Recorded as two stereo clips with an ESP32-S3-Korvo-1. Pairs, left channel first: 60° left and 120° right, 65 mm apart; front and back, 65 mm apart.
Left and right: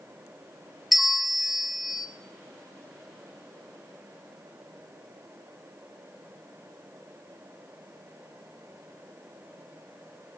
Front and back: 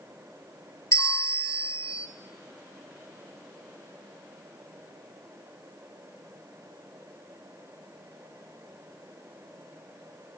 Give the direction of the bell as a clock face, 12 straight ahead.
1 o'clock.